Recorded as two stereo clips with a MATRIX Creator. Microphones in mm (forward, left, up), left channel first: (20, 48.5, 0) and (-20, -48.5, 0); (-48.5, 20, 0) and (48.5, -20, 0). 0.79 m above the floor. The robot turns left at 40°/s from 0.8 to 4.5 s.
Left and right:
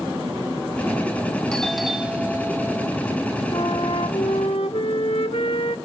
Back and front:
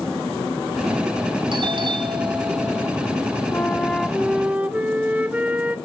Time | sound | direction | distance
1.5 | a doorbell | 10° right | 2.5 m
3.5 | a flute | 90° left | 1.6 m